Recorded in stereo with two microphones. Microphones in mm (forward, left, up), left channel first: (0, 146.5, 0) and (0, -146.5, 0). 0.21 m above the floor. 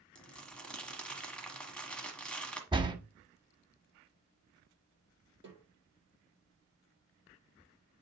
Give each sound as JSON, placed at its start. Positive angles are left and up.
{"t": 0.1, "sound": "crumpling", "side_deg": 5, "distance_m": 1.5}
{"t": 2.7, "sound": "a door slam", "side_deg": -15, "distance_m": 0.8}
{"t": 5.4, "sound": "a snare drum", "side_deg": -35, "distance_m": 5.0}